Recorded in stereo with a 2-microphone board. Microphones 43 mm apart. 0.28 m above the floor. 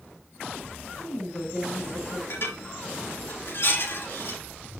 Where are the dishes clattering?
60° left (ahead or behind), 4.5 m.